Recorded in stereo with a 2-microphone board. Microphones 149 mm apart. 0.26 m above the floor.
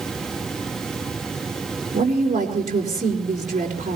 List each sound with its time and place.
1.9 s a woman speaking: 55° right (ahead or behind), 4 m